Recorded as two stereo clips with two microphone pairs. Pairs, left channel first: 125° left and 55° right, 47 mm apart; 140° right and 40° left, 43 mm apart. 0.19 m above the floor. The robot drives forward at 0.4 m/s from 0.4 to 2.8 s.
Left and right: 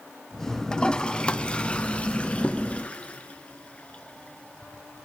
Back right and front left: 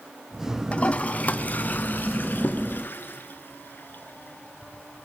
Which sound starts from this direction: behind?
A toilet flushing, at 0.7 s.